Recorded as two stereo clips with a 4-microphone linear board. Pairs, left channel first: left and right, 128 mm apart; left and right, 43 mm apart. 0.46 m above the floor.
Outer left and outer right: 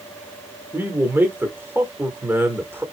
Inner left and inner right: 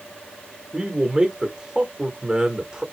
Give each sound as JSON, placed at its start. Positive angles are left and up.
{"t": 0.7, "sound": "a man speaking", "side_deg": -15, "distance_m": 1.1}